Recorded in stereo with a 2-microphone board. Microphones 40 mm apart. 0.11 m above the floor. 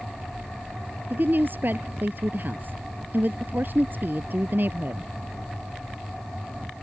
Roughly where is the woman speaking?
Right.